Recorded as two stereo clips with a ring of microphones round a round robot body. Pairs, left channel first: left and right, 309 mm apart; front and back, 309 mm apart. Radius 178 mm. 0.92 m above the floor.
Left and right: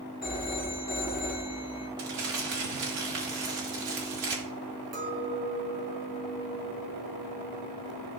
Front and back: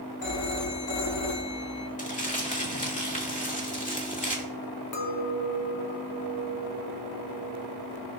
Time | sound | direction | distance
0.2 | a phone ringing | 15° left | 1.5 m
2.0 | crumpling | 65° right | 2.5 m
4.9 | a clink | 30° right | 1.3 m